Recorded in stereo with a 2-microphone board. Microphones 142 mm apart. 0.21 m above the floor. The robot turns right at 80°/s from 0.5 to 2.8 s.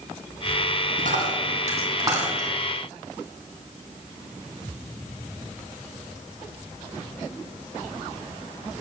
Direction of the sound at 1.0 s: 65° right (ahead or behind).